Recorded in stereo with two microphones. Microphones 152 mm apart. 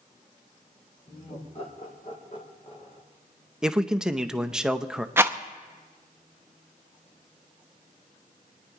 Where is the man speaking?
5° right (ahead or behind), 0.6 m.